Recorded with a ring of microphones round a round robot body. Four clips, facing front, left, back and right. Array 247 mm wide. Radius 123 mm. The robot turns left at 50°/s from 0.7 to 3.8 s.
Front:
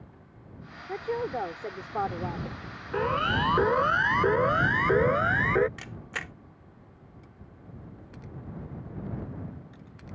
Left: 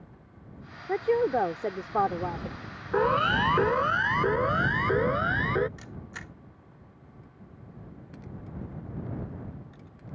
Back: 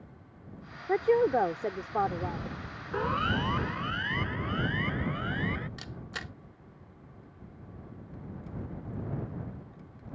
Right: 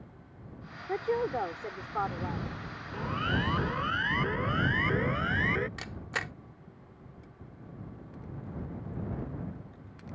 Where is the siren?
80° left; by 5.7 s 20° left.